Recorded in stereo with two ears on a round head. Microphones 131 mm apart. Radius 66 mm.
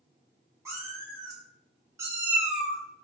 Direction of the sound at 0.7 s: 20° right (ahead or behind).